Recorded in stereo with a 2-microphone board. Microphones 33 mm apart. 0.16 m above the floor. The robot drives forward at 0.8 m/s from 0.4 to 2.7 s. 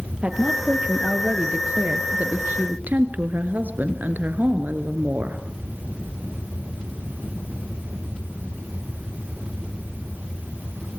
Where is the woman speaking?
40° right (ahead or behind), 3 m; by 5.4 s 60° right (ahead or behind), 2 m.